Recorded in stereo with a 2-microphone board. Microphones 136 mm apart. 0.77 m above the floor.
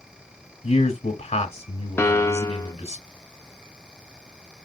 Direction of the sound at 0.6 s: 60° left (ahead or behind).